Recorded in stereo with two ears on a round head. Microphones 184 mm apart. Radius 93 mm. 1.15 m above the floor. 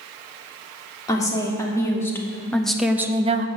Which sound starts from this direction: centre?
A woman speaking, at 1.1 s.